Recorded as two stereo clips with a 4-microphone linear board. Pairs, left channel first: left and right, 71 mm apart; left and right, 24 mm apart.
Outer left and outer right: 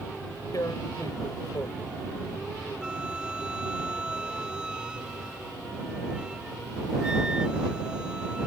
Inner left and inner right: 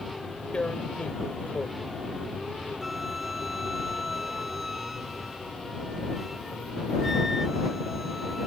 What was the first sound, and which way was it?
Tearing paper, 60° left (ahead or behind).